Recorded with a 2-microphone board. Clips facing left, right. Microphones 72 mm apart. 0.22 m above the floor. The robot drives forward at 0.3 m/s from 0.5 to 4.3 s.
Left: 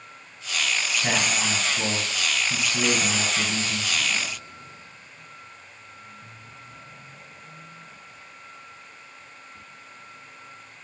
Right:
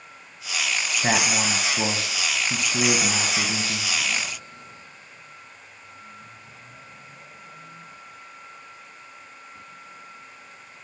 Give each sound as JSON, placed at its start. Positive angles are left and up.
{"t": 1.0, "sound": "a man speaking", "side_deg": -35, "distance_m": 1.2}